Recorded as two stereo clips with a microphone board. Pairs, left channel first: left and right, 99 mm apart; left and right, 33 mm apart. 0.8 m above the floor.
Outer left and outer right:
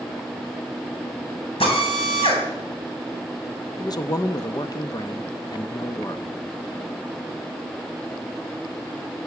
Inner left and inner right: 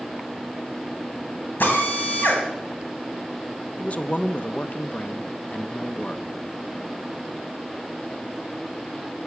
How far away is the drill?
About 2.5 m.